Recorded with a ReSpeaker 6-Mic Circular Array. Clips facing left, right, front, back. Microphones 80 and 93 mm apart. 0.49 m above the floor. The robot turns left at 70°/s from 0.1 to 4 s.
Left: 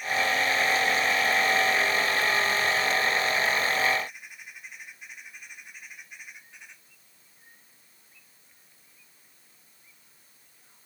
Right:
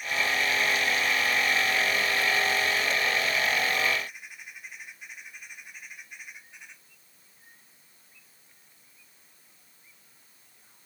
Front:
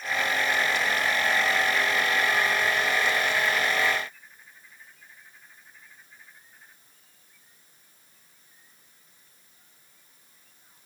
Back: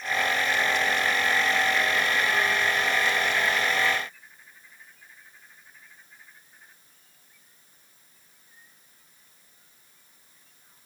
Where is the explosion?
No explosion in this recording.